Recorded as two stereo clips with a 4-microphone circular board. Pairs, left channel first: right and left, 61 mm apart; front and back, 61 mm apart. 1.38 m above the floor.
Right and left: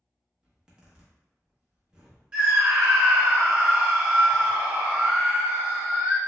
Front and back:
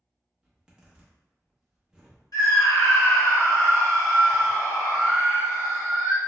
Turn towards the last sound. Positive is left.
turn(degrees=15)